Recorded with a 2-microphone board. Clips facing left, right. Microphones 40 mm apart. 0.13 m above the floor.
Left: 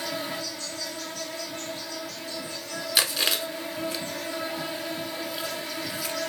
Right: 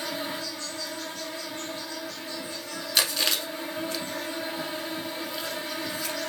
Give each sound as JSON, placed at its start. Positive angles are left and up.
{"t": 0.0, "sound": "an insect", "side_deg": 5, "distance_m": 1.2}
{"t": 3.0, "sound": "chewing", "side_deg": 5, "distance_m": 0.7}